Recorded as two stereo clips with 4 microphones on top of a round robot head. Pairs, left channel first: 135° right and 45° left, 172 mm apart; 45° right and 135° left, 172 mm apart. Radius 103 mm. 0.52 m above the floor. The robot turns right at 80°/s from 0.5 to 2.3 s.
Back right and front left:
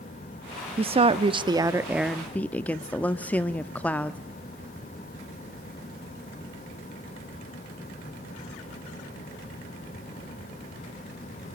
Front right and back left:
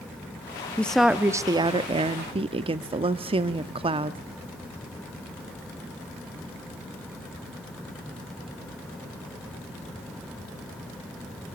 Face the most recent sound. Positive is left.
turn(degrees=150)